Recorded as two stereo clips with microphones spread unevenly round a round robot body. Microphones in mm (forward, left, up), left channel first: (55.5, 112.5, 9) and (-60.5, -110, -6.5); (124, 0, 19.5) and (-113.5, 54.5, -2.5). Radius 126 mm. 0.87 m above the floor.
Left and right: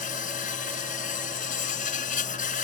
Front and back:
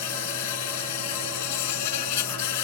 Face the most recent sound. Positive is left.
turn(degrees=0)